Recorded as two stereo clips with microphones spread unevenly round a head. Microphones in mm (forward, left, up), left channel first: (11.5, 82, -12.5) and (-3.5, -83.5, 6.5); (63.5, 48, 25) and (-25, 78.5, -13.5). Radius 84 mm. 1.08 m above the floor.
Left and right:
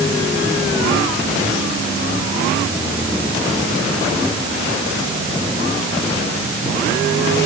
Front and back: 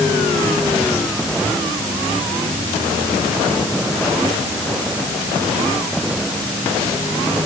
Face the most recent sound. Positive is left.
No sound to turn to.